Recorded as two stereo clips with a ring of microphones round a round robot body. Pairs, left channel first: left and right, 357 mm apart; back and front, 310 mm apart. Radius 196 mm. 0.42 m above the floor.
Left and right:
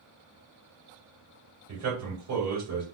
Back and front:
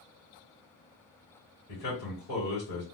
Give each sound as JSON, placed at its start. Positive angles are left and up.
{"t": 1.7, "sound": "a man speaking", "azimuth_deg": -135, "distance_m": 2.0}